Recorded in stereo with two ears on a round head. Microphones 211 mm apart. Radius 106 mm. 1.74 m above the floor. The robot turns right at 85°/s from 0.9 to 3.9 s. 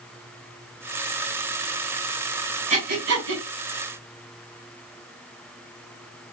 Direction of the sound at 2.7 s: 30° right (ahead or behind).